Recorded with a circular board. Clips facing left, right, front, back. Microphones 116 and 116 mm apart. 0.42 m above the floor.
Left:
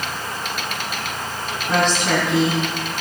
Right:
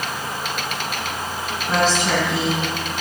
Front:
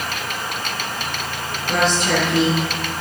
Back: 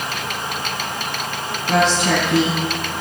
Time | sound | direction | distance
1.7 | a woman speaking | 175° right | 3.5 m